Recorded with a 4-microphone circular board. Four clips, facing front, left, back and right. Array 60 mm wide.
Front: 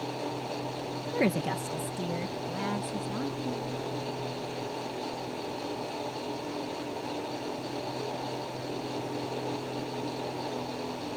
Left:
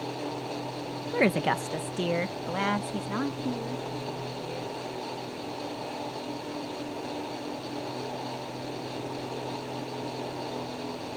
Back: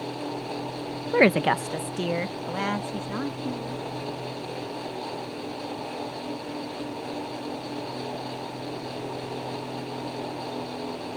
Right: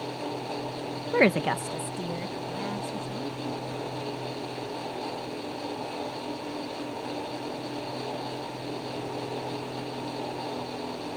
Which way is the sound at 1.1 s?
150° right.